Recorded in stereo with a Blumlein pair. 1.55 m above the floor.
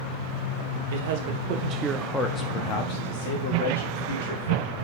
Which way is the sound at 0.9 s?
60° right.